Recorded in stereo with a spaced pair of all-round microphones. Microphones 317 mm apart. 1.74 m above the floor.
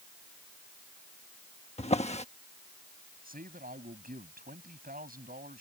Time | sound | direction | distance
1.8 | a drawer | 20° left (ahead or behind) | ?
3.2 | a man speaking | 25° right (ahead or behind) | ?